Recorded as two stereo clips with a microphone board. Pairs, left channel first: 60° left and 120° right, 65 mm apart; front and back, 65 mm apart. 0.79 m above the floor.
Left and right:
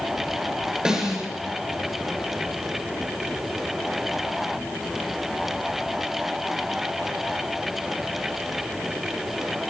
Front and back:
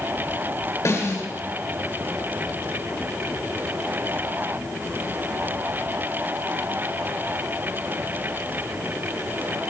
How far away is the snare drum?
About 9 m.